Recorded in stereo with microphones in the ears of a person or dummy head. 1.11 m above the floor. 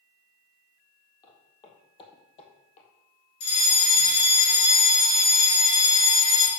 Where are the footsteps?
25° left (ahead or behind), 2.5 m; by 2.9 s 40° left (ahead or behind), 2.0 m.